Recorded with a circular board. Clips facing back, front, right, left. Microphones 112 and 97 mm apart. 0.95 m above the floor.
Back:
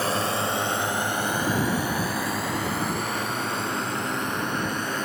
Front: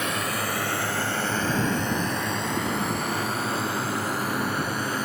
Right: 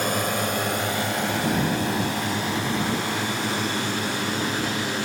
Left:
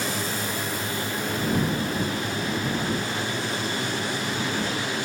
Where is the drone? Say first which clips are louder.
Back 3 dB, right 4 dB; 125° right; by 5.0 s 85° right.